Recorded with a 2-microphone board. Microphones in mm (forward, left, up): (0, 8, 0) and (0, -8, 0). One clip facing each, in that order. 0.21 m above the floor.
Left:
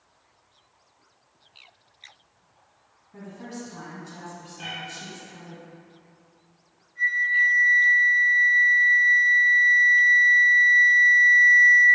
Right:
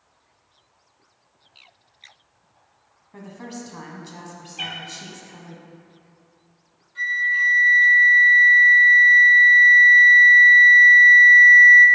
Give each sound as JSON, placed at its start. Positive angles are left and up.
{"t": 3.1, "sound": "a woman speaking", "side_deg": -30, "distance_m": 1.3}
{"t": 4.6, "sound": "a cat meowing", "side_deg": -80, "distance_m": 1.8}
{"t": 7.0, "sound": "a flute", "side_deg": -65, "distance_m": 3.0}